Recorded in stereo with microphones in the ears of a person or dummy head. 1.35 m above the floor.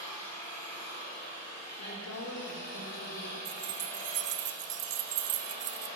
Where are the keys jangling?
60° right (ahead or behind), 0.7 m.